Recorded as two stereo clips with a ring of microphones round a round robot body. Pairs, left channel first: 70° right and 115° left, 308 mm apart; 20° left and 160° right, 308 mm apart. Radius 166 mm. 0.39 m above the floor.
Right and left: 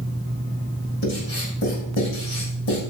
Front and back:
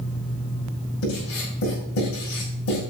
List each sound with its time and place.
1.0 s writing: 15° right, 7 m